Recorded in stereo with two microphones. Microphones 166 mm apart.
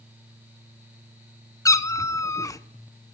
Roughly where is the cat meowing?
Centre.